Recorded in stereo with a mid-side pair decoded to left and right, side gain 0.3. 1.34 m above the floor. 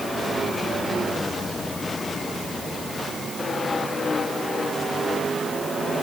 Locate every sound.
Only background noise.